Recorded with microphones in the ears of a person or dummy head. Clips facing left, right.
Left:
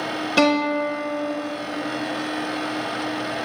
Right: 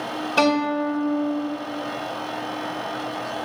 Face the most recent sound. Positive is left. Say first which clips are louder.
# left 1 dB
turn(degrees=30)  # may be behind; listen again after turning